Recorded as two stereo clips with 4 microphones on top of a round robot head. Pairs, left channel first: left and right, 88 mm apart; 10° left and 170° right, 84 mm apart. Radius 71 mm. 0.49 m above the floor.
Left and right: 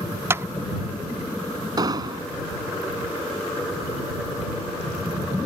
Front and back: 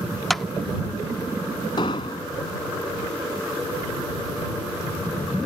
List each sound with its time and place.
0.3 s a clap: 80° right
1.8 s an explosion: 45° right